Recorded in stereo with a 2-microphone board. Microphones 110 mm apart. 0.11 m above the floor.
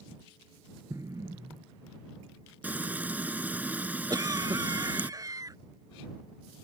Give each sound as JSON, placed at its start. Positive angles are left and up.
{"t": 0.9, "sound": "an explosion", "side_deg": -30}
{"t": 2.6, "sound": "frying", "side_deg": -15}
{"t": 4.1, "sound": "a cough", "side_deg": -35}